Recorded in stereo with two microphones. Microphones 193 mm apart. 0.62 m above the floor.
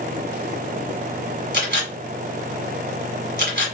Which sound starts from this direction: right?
A camera shutter, at 1.5 s.